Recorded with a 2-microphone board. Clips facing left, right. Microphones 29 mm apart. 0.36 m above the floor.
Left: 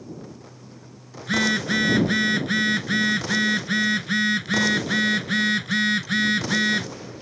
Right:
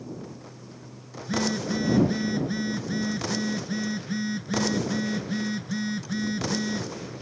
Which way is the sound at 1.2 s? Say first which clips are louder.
Left 6 dB; 75° left (ahead or behind).